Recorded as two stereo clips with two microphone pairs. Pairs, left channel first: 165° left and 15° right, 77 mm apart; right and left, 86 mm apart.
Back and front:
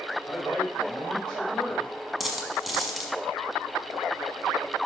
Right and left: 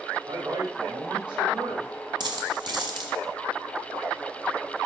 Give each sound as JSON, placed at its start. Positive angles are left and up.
{"t": 0.3, "sound": "a man speaking", "azimuth_deg": 85, "distance_m": 4.5}
{"t": 2.2, "sound": "a dropped coin", "azimuth_deg": 75, "distance_m": 1.6}